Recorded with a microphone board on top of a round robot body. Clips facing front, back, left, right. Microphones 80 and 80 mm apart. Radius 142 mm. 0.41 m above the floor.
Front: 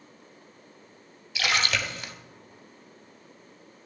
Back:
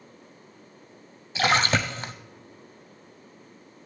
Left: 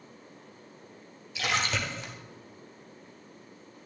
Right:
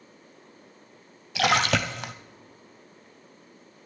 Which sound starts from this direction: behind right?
A splash, at 1.4 s.